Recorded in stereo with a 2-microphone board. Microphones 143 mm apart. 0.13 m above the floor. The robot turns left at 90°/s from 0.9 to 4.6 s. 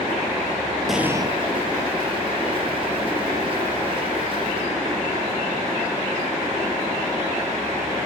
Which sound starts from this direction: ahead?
An explosion, at 0.9 s.